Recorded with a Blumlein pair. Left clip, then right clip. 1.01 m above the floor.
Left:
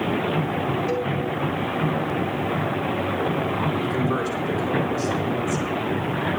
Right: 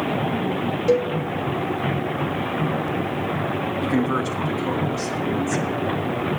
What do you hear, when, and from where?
0.9 s a cowbell: 30° right, 1.5 m
3.8 s a man speaking: 35° right, 1.9 m